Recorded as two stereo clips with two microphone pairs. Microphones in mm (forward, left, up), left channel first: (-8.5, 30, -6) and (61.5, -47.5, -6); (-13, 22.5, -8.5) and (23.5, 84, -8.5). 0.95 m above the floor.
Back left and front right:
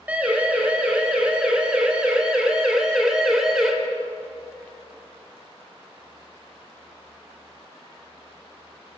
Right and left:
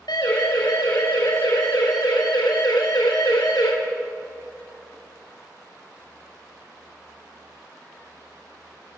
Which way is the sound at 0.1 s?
125° right.